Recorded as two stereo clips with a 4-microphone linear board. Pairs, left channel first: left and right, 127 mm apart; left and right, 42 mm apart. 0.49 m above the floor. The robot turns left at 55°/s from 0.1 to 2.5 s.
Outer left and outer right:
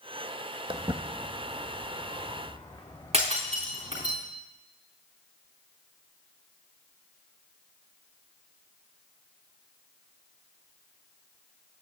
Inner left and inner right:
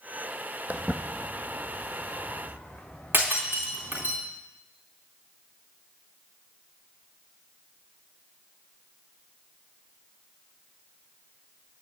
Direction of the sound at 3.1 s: 55° right (ahead or behind).